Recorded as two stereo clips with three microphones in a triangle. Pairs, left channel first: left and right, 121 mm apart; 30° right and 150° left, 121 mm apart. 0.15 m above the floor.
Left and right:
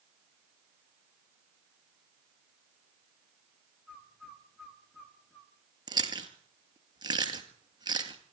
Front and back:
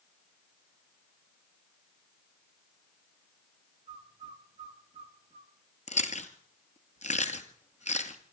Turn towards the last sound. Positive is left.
turn(degrees=-35)